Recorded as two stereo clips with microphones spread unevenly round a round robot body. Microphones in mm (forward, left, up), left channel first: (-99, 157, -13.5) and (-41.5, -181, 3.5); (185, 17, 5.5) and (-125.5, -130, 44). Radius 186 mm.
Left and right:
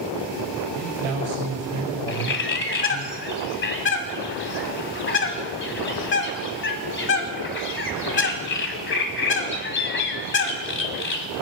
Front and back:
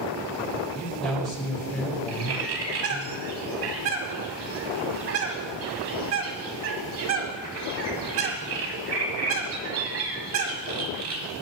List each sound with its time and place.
0.8 s a man speaking: 60° right, 5 m
2.1 s a bird: 155° left, 1.5 m